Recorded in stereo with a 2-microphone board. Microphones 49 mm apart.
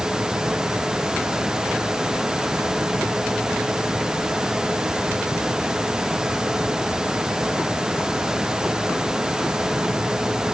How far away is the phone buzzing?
No phone buzzing in this recording.